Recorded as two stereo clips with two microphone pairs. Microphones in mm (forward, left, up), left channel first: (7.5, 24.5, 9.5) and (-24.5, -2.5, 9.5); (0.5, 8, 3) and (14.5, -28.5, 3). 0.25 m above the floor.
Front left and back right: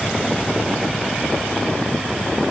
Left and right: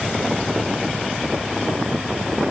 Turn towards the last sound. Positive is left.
No sound to turn to.